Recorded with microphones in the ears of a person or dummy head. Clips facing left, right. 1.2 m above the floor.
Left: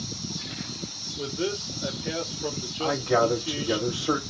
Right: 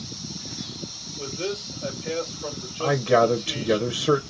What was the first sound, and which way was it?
A man speaking, 5° left (ahead or behind).